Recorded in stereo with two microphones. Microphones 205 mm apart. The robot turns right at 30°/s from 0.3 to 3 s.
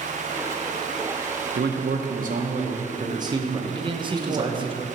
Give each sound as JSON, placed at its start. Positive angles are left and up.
{"t": 1.6, "sound": "a man speaking", "azimuth_deg": -65, "distance_m": 0.8}
{"t": 3.7, "sound": "a man speaking", "side_deg": -25, "distance_m": 0.6}